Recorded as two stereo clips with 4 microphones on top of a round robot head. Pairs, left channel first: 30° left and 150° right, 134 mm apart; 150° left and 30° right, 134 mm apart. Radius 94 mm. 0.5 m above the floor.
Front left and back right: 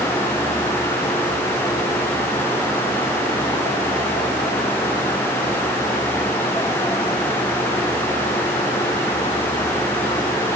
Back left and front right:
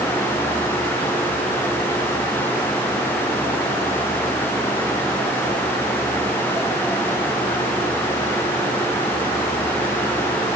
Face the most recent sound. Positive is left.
No sound to turn to.